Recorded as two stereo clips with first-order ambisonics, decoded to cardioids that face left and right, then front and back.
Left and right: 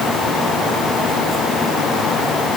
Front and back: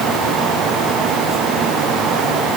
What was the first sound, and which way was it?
Only background noise.